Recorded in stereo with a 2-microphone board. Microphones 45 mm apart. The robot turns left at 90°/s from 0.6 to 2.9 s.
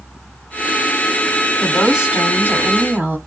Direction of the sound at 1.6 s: Straight ahead.